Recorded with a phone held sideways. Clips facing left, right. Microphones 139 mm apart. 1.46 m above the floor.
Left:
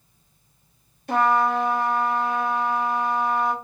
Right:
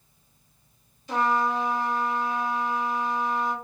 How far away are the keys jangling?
No keys jangling in this recording.